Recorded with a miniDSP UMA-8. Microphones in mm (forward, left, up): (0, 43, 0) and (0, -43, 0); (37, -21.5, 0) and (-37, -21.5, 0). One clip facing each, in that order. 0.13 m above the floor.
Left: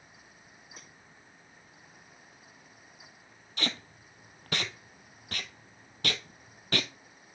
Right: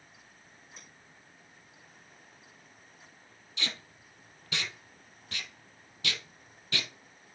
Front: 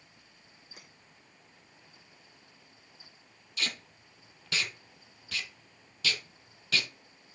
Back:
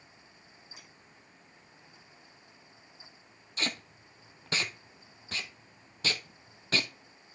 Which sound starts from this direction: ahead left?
A clink, at 0.8 s.